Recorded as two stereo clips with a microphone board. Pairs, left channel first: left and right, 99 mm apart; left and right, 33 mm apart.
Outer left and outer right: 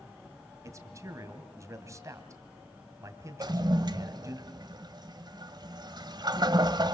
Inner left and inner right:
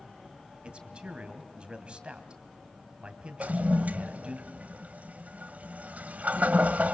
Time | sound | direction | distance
0.6 | a man speaking | 35° right (ahead or behind) | 2.5 m
3.4 | a toilet flushing | 45° right (ahead or behind) | 1.1 m